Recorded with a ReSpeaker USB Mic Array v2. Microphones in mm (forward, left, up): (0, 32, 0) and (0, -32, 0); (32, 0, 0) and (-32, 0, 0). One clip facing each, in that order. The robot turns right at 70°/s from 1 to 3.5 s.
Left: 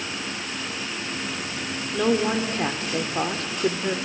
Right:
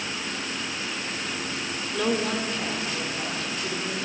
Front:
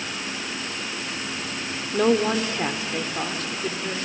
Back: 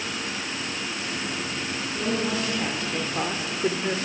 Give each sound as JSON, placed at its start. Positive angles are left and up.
{"t": 1.9, "sound": "a woman speaking", "azimuth_deg": 5, "distance_m": 1.8}